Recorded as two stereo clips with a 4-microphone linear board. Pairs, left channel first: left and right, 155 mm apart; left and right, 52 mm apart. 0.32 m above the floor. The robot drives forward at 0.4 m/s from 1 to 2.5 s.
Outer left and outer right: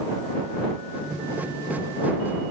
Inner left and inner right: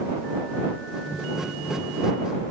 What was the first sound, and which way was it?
Only background noise.